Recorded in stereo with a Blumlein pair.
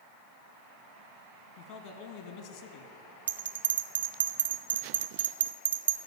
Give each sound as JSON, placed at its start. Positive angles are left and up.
{"t": 1.6, "sound": "a man speaking", "azimuth_deg": 55, "distance_m": 0.9}
{"t": 3.3, "sound": "a bell", "azimuth_deg": -70, "distance_m": 0.6}